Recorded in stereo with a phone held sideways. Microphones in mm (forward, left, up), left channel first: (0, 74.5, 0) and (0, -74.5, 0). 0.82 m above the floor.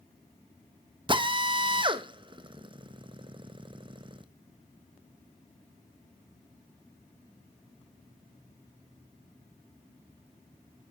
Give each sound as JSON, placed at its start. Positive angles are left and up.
{"t": 1.1, "sound": "a drill", "side_deg": -35, "distance_m": 0.6}